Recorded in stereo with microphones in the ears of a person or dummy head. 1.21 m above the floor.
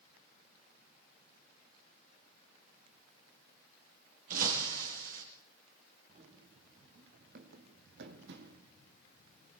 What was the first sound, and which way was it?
Breaking glass, 50° right (ahead or behind).